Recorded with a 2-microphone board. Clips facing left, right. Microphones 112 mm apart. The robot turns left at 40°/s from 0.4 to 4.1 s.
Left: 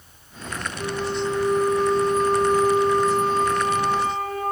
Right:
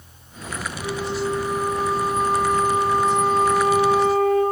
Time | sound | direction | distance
0.8 | a flute | 170° right | 2 m